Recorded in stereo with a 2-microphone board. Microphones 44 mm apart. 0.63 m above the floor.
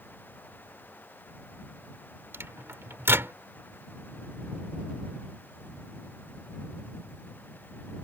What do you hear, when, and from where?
2.3 s a microwave: 70° right (ahead or behind)